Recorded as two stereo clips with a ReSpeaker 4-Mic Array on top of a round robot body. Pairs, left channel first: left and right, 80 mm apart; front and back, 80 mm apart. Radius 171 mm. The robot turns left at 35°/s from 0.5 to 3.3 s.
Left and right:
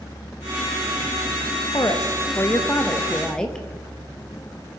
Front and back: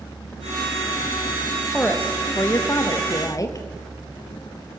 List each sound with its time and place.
1.7 s a woman speaking: 70° left, 1.1 m; by 3.7 s 15° left, 1.1 m